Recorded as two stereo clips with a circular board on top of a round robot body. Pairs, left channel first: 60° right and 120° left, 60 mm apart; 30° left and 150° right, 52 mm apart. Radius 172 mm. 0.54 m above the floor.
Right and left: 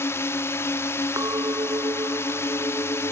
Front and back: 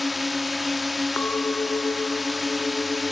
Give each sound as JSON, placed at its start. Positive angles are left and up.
{"t": 0.0, "sound": "a drone", "azimuth_deg": -60}
{"t": 1.2, "sound": "a clink", "azimuth_deg": 85}